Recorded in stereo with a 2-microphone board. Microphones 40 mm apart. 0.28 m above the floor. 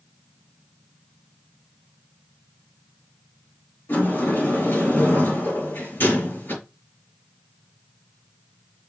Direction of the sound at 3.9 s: 70° left (ahead or behind).